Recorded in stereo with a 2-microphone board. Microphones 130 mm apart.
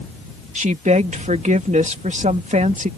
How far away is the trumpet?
I don't hear a trumpet.